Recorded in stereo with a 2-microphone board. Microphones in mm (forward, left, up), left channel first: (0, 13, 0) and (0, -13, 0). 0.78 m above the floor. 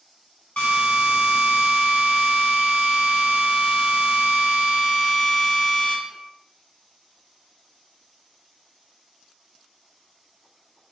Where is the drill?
80° left, 1.7 m.